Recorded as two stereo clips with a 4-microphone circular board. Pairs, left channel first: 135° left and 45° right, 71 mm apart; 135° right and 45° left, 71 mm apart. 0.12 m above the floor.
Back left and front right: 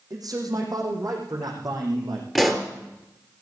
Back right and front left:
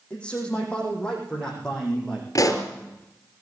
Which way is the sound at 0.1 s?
60° right.